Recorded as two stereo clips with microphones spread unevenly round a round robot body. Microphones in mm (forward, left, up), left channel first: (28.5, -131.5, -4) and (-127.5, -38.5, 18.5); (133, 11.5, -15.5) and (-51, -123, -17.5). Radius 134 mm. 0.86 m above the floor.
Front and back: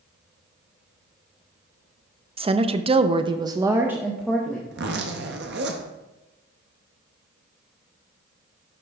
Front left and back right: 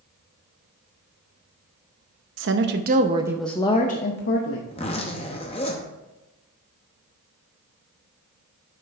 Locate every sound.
2.4 s a woman speaking: 150° right, 0.8 m; by 4.6 s 50° left, 0.9 m
4.7 s a zipper: 105° left, 0.6 m